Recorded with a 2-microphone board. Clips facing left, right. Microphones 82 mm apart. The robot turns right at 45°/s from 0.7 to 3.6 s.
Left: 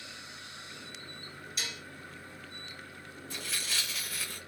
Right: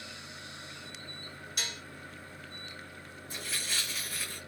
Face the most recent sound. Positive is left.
turn(degrees=0)  # may be behind; listen again after turning